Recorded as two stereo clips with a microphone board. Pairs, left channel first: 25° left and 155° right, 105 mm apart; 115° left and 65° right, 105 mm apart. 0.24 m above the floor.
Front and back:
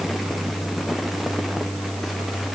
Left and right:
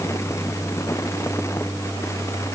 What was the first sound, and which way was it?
Only background noise.